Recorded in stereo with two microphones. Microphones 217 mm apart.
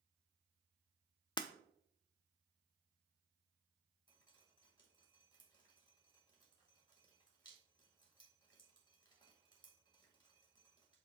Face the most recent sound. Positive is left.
turn(degrees=20)  # may be behind; listen again after turning